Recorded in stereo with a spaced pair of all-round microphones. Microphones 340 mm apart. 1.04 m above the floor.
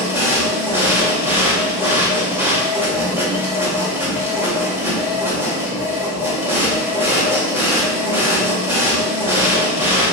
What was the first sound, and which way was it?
A machine running, 5° right (ahead or behind).